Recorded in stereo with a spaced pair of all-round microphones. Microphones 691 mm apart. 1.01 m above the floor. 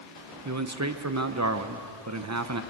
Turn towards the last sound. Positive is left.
turn(degrees=-25)  # may be behind; listen again after turning